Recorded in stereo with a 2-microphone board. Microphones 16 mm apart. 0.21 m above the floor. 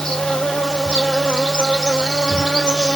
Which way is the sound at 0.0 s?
70° left (ahead or behind).